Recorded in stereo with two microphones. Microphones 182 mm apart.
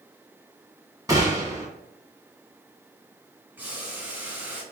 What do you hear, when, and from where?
1.1 s a gunshot: 20° right (ahead or behind), 1.6 m
3.6 s boiling: 10° right (ahead or behind), 1.4 m